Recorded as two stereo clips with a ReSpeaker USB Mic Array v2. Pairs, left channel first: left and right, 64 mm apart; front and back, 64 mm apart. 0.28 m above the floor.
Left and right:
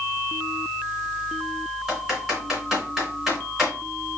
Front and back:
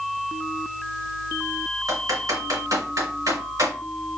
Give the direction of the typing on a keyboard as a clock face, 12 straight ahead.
6 o'clock.